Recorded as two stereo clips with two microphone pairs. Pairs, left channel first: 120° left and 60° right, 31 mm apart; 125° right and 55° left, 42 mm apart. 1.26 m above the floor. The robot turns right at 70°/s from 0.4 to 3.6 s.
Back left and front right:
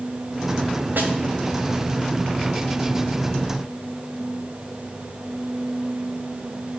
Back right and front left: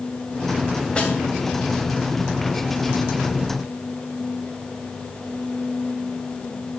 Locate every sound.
1.0 s a snare drum: 65° right, 2 m; by 1.1 s 50° right, 2 m